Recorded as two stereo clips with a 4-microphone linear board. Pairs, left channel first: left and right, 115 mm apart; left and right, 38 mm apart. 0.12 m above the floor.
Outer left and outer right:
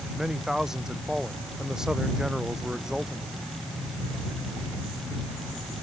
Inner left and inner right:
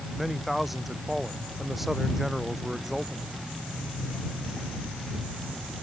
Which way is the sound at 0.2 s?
5° right (ahead or behind).